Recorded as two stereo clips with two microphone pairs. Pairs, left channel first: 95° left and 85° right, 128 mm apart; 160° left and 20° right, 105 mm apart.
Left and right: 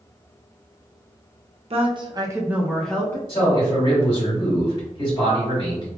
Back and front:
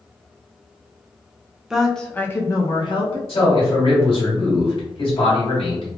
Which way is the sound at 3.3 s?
145° left.